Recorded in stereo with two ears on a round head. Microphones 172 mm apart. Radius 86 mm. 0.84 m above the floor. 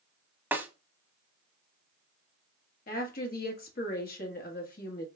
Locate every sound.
0.5 s a snare drum: 10° right (ahead or behind), 0.8 m
2.9 s a woman speaking: 50° left (ahead or behind), 1.3 m